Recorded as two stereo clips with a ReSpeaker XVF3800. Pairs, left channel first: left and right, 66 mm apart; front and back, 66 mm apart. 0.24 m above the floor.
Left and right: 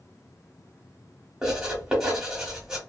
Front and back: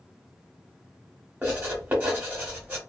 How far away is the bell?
I don't hear a bell.